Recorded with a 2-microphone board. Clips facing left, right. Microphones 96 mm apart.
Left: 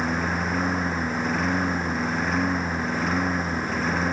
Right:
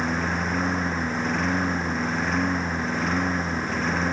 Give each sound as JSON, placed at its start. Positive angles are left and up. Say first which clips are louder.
{"t": 0.0, "sound": "a lawn mower", "louder": "even", "side_deg": 0}